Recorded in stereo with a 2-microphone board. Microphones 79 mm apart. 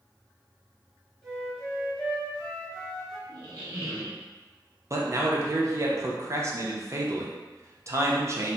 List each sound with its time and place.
1.2 s a flute: 10° left (ahead or behind), 0.9 m
3.3 s a squeak: 60° right (ahead or behind), 0.7 m
4.9 s a man speaking: 35° right (ahead or behind), 0.5 m